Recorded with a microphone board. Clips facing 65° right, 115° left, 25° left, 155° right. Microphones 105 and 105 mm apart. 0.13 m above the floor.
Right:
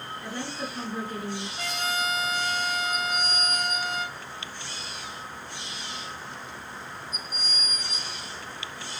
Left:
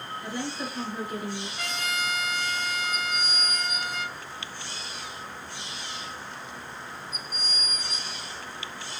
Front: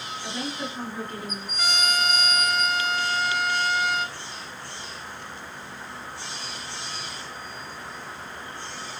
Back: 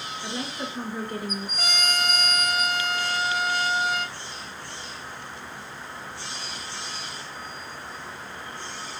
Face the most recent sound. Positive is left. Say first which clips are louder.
# right 3 dB, front 3 dB
turn(degrees=-125)